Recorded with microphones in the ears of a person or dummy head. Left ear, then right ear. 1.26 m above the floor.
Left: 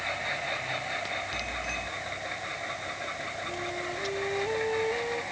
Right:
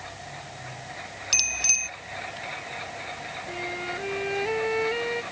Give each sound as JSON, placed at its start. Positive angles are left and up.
{"t": 1.3, "sound": "a bicycle bell", "side_deg": -85}
{"t": 3.5, "sound": "a flute", "side_deg": -55}